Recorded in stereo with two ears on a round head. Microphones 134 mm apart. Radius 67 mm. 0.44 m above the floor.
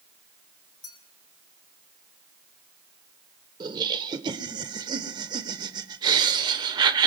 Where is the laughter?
30° right (ahead or behind), 1.1 m.